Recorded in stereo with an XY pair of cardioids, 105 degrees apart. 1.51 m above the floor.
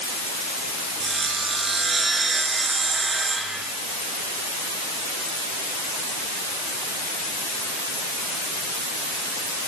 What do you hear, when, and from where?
1.0 s sawing: 30° right, 6.5 m